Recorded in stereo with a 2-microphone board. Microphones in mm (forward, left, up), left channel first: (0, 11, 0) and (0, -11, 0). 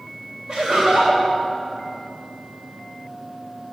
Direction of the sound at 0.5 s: 65° right (ahead or behind).